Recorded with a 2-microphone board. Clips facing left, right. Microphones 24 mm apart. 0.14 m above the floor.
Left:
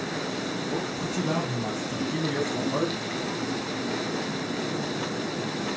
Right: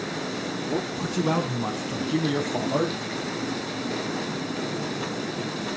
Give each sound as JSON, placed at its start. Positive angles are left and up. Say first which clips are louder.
{"t": 0.6, "sound": "a man speaking", "louder": "right 1 dB", "side_deg": -55, "distance_m": 5.0}